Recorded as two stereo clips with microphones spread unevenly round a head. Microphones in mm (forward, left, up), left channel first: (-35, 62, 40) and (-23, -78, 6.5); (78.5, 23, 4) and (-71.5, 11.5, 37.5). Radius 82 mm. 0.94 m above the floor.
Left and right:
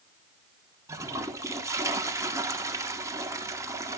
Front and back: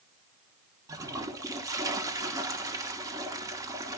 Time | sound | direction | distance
0.9 | a toilet flushing | 105° right | 1.0 m